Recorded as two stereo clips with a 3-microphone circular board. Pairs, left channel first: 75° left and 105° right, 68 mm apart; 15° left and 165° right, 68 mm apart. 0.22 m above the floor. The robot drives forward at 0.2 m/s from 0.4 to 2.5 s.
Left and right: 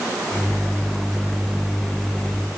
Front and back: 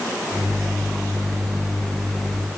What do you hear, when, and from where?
Only background noise.